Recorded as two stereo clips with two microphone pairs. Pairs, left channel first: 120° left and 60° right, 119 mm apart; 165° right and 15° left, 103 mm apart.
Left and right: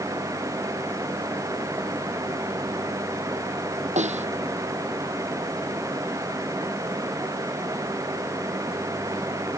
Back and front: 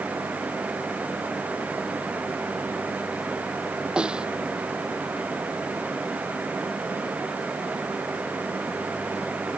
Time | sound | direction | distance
4.0 | a snare drum | 65° right | ?